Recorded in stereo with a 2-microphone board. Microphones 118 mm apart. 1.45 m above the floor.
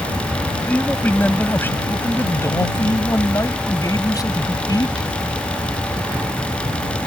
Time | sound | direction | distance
0.7 | a man speaking | 15° left (ahead or behind) | ?